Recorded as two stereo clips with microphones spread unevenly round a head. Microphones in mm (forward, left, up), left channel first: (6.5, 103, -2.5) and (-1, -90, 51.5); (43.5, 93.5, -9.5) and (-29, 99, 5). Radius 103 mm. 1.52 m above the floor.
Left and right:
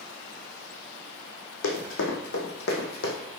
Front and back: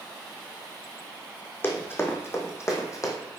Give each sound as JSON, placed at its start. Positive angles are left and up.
{"t": 1.6, "sound": "running footsteps", "azimuth_deg": 55, "distance_m": 3.0}